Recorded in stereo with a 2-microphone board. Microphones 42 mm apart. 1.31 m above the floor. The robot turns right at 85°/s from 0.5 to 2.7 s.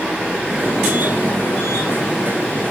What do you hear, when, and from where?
0.0 s running water: 15° right, 8.5 m; by 2.7 s 170° left, 8.5 m